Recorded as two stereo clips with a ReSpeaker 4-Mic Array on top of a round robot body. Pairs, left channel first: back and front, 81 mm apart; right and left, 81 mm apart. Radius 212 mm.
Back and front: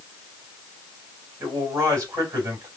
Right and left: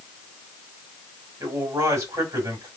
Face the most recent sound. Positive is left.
turn(degrees=50)